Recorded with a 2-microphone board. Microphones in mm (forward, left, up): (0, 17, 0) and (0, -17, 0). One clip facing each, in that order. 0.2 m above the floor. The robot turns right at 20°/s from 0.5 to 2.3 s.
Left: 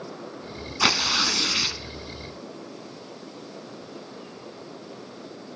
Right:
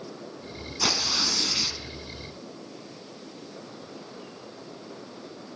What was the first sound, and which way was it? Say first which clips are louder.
Tearing paper: left 5 dB; 55° left (ahead or behind).